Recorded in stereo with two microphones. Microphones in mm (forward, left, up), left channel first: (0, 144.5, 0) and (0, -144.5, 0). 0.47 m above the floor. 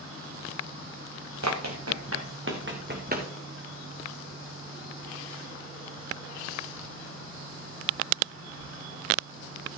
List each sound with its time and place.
1.4 s running footsteps: 65° right (ahead or behind), 2 m; by 3.3 s 25° right (ahead or behind), 2 m